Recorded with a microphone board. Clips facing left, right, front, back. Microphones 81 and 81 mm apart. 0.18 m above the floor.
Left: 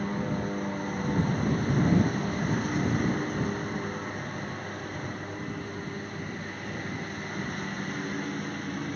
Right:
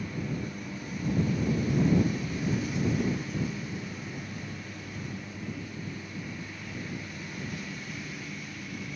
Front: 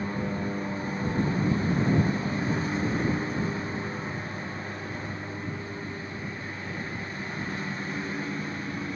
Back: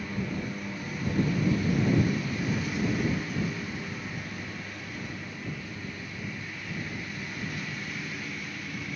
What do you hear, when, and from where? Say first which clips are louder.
0.0 s a lawn mower: left 4 dB, front 3 dB; 55° left